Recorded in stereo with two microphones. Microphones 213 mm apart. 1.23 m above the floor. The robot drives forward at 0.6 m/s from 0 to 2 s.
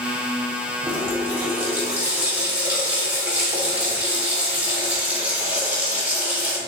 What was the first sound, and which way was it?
A running tap, 10° right (ahead or behind).